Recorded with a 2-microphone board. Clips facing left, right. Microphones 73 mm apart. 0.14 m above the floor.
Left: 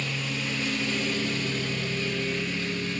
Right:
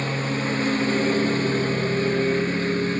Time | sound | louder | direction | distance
0.0 | a lawn mower | right 7 dB | 40° right (ahead or behind) | ?